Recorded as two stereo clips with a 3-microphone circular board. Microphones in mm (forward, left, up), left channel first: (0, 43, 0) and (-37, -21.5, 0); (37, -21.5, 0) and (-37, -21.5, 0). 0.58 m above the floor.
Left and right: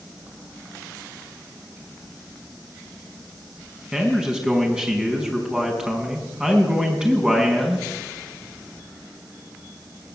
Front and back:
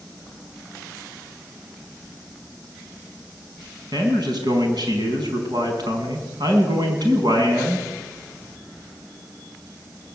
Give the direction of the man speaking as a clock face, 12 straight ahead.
7 o'clock.